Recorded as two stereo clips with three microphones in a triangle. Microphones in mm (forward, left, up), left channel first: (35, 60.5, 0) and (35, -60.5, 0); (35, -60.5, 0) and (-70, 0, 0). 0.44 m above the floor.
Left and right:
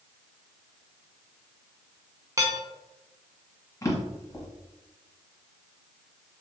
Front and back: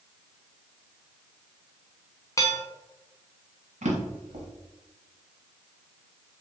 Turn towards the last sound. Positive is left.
turn(degrees=155)